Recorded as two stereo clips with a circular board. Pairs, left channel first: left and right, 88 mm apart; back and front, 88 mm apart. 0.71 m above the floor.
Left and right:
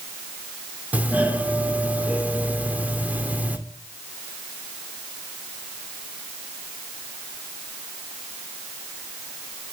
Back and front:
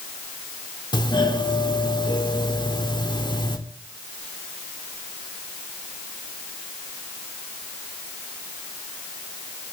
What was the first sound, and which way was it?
A doorbell, 160° right.